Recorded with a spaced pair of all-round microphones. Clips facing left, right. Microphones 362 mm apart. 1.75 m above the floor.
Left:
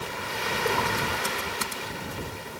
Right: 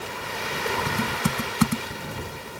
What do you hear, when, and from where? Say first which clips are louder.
0.9 s typing on a keyboard: right 4 dB; 85° right